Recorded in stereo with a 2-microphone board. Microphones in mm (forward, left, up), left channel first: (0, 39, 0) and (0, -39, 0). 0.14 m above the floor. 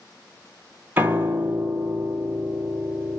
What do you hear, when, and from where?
1.0 s a piano: 25° right (ahead or behind), 0.7 m